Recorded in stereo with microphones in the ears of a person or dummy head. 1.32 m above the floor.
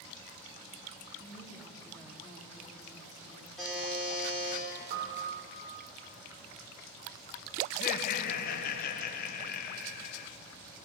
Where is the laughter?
50° left (ahead or behind), 1.0 m.